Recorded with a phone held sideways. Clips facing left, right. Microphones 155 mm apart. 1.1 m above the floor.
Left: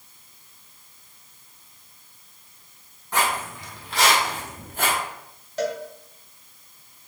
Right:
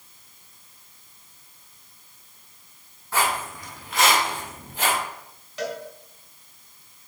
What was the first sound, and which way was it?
Footsteps, 15° left (ahead or behind).